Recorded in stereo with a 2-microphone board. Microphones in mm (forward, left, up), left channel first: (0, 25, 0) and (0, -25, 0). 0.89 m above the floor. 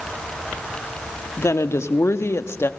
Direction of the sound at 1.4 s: 75° left (ahead or behind).